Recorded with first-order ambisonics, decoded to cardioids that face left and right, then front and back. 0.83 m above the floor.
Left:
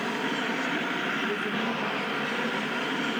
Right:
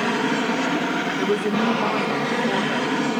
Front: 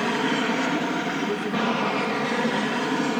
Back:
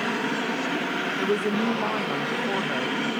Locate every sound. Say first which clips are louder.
0.0 s an aircraft: right 7 dB, front 3 dB; 70° right; by 3.2 s 60° right
1.2 s a woman speaking: right 7 dB, back 1 dB; 120° right